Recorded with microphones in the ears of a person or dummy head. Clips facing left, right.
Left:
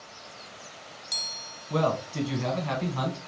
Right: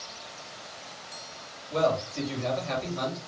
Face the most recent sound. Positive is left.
turn(degrees=75)  # may be behind; listen again after turning